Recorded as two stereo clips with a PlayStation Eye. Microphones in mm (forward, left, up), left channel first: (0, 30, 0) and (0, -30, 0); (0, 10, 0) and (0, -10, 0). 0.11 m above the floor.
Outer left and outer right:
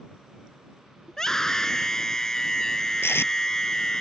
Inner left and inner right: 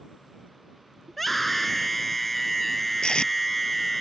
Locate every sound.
1.1 s a scream: 10° left (ahead or behind)
3.0 s tape being pulled: 45° left (ahead or behind)